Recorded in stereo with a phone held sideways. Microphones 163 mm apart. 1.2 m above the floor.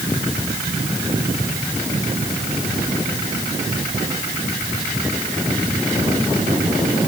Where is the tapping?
No tapping in this recording.